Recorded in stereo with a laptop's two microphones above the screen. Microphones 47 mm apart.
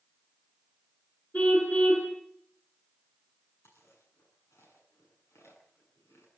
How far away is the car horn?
About 6 m.